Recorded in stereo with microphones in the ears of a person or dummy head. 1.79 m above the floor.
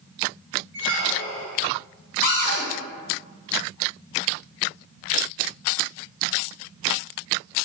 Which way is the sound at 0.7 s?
65° right (ahead or behind).